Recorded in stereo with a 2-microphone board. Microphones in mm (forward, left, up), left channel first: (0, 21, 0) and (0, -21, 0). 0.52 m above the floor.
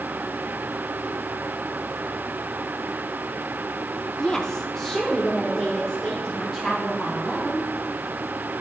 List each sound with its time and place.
4.2 s a woman speaking: 15° left (ahead or behind), 0.7 m; by 7.6 s centre (ahead or behind), 3 m